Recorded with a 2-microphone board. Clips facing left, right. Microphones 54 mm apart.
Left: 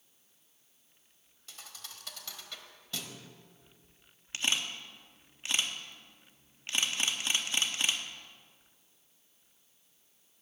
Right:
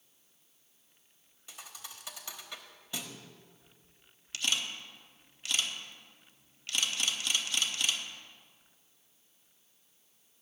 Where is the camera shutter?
30° left (ahead or behind), 1.0 m.